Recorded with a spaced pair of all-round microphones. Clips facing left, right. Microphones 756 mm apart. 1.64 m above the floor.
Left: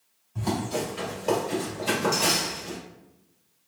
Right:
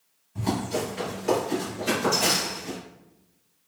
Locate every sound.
0.3 s running footsteps: 15° right (ahead or behind), 1.8 m; by 2.8 s 30° right (ahead or behind), 1.9 m